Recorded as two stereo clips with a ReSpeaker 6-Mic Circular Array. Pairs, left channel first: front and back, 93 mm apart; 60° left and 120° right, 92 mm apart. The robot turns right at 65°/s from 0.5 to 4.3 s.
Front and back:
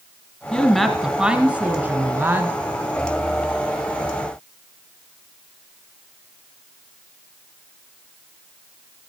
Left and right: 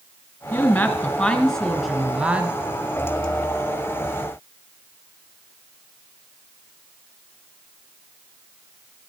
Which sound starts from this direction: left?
A woman speaking, at 0.5 s.